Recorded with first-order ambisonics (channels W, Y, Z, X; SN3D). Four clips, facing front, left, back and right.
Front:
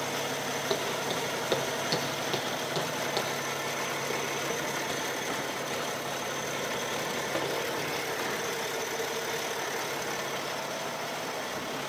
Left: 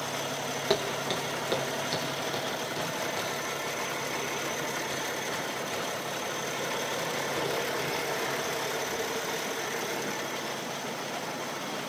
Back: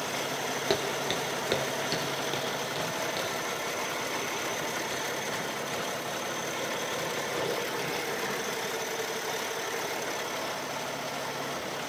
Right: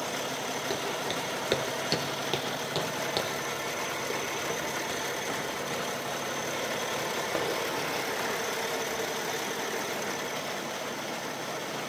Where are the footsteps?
145° left, 1.6 m; by 8.3 s 65° right, 10.5 m.